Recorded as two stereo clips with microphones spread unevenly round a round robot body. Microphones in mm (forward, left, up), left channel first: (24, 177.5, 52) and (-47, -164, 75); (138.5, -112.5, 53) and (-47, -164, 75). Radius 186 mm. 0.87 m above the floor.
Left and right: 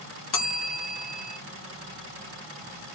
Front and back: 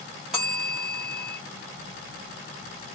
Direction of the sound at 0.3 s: 100° left.